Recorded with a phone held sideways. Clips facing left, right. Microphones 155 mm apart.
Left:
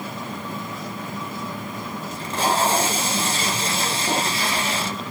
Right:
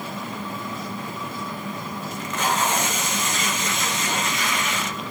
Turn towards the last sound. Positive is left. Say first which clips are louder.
# left 3 dB
turn(degrees=35)  # may be behind; listen again after turning